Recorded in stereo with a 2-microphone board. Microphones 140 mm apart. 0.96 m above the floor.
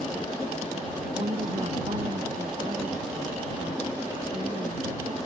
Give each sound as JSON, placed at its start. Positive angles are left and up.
{"t": 1.1, "sound": "a woman speaking", "side_deg": -50}